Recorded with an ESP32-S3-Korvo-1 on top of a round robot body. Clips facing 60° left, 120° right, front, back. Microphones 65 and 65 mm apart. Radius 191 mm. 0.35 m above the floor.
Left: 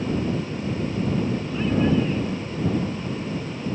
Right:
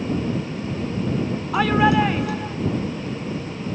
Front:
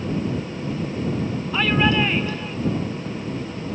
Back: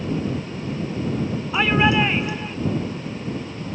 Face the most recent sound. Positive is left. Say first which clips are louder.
# right 5 dB, back 1 dB
turn(degrees=-105)